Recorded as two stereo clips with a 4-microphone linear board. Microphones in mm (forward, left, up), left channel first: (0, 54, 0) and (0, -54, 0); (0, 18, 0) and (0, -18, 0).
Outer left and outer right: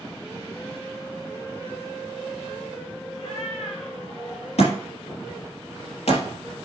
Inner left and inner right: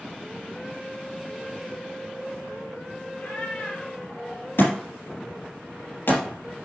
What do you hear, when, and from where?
3.1 s a cat meowing: 70° left (ahead or behind), 3.5 m; by 4.5 s 85° left, 3.5 m
4.6 s a thud: 85° left, 3.5 m